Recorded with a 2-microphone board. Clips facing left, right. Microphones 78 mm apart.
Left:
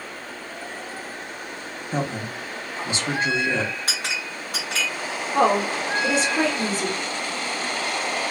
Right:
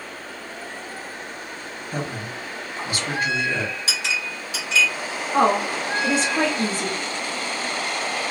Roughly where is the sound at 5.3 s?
Right.